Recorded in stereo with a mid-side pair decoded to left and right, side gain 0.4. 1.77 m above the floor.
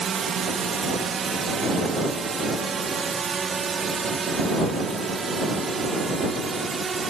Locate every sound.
0.0 s a drone: 55° right; by 7.1 s 40° right